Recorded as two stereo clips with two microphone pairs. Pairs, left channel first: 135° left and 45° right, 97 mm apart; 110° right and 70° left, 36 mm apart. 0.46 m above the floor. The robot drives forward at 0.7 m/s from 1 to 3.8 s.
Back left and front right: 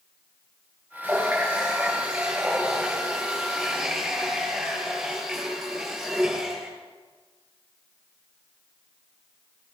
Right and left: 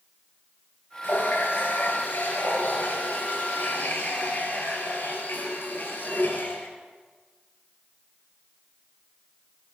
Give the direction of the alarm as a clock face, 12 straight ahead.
I don't hear an alarm.